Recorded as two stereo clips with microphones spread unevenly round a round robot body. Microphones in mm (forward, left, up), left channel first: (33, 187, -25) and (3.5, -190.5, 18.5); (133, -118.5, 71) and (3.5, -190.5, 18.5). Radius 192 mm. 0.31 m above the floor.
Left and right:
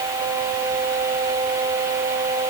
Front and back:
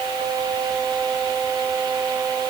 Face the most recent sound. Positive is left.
No sound to turn to.